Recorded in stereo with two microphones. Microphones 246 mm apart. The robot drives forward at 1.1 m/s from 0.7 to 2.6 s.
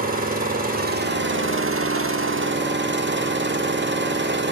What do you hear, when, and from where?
0.0 s an engine running: 35° right (ahead or behind), 1.8 m; by 4.5 s 45° right (ahead or behind), 1.4 m